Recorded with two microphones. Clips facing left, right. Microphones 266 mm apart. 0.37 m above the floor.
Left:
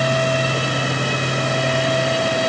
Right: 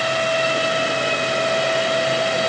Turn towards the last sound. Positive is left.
No sound to turn to.